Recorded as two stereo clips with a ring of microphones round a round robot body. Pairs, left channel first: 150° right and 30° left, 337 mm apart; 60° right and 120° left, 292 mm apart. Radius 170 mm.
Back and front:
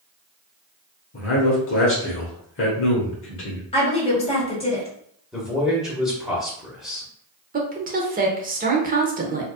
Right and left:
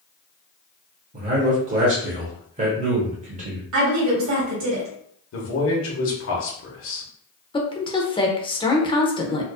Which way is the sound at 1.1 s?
175° left.